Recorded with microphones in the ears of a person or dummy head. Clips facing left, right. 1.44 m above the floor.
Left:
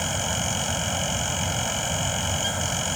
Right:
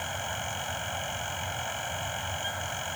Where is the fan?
55° left (ahead or behind).